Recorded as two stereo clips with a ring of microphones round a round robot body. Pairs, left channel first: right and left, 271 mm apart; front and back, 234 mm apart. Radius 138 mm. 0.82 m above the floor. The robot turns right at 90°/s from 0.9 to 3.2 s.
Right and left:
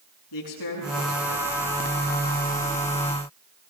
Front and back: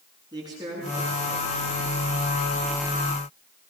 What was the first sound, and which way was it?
A man speaking, 105° right.